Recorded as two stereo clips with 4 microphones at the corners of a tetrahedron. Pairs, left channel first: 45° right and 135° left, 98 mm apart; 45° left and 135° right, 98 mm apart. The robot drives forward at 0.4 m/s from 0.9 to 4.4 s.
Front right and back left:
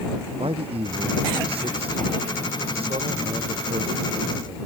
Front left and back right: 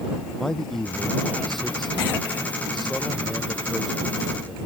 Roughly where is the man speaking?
Behind left.